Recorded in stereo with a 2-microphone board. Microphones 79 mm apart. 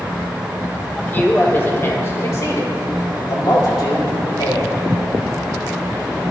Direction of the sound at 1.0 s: 25° left (ahead or behind).